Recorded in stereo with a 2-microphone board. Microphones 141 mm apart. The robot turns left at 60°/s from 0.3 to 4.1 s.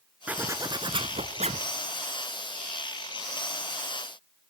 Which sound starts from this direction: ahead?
A zipper, at 0.3 s.